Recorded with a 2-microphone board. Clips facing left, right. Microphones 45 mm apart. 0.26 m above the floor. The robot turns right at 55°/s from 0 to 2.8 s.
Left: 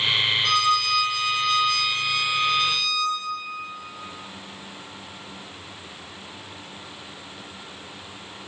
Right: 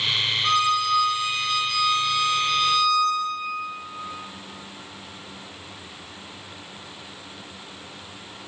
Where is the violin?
20° right (ahead or behind), 0.6 m; by 3.2 s 15° left (ahead or behind), 0.6 m.